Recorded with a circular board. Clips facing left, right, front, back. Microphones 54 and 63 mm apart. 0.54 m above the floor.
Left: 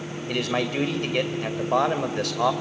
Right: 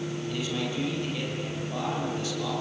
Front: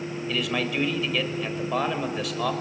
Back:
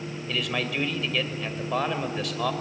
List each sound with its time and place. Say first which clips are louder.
0.3 s a man speaking: left 9 dB, front 1 dB; 90° left, 2 m